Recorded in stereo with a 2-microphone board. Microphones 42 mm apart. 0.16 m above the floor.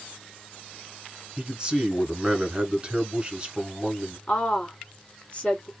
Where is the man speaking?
25° right (ahead or behind), 1.3 m.